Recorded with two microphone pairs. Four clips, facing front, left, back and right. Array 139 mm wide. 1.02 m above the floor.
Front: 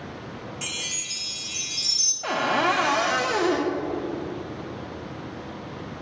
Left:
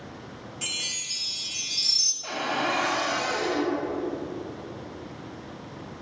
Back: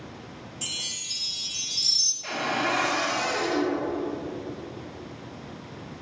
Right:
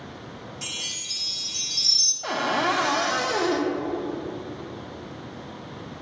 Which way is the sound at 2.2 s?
30° right.